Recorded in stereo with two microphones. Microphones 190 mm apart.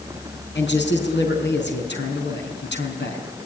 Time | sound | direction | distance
0.6 | a man speaking | 70° left (ahead or behind) | 4.5 m